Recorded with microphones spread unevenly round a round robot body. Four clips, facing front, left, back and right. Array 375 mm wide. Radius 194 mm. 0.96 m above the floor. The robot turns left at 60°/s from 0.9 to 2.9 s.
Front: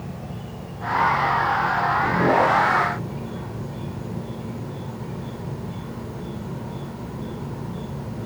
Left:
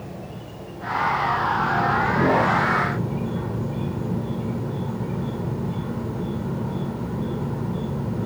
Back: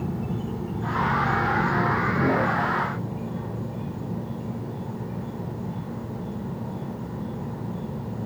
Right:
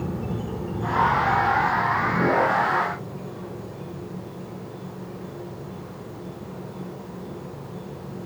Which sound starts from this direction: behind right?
An insect, at 0.0 s.